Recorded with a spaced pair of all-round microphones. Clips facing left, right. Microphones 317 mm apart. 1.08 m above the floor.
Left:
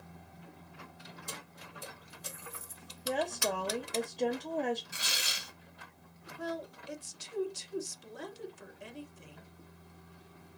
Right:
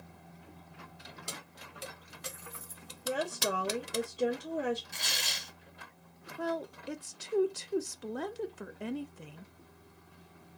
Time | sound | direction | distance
1.3 | keys jangling | 80° right | 1.4 m
3.0 | a woman speaking | 10° right (ahead or behind) | 1.1 m
4.9 | tearing paper | 10° left (ahead or behind) | 0.7 m
6.4 | a woman speaking | 70° right (ahead or behind) | 0.7 m